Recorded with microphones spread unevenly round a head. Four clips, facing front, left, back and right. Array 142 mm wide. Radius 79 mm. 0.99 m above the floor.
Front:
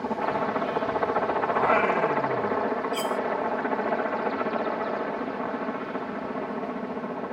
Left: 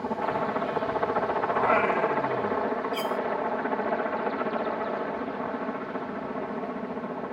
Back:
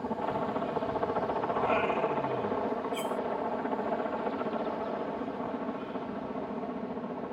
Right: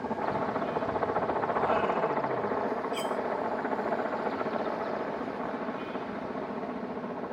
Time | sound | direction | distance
0.0 | a helicopter | 25° left | ?
1.5 | singing | 30° left | ?
2.9 | cutlery clinking | 65° left | ?